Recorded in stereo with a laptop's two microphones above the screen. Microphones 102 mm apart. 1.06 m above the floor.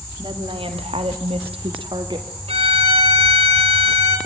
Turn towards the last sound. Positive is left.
turn(degrees=-80)